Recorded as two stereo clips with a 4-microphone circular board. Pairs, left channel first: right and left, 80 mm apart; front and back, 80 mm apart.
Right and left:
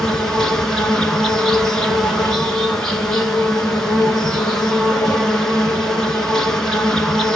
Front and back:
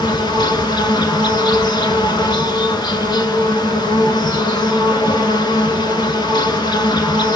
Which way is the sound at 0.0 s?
5° right.